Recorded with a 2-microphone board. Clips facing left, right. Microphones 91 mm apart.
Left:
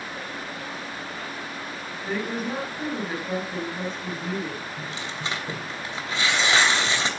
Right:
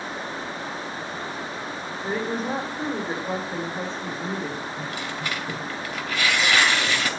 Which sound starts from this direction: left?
Tearing paper, at 4.8 s.